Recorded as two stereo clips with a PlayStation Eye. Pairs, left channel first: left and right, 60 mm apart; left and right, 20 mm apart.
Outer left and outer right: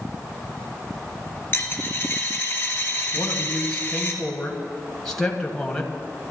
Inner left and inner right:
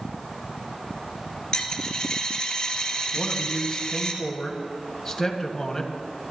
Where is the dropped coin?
30° left (ahead or behind), 2.5 m.